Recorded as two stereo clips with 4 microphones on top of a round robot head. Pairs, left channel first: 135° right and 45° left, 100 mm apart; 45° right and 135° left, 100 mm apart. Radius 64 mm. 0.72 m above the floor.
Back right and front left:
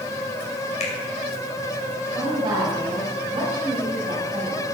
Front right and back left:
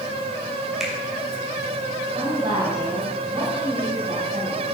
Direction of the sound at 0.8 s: 140° right.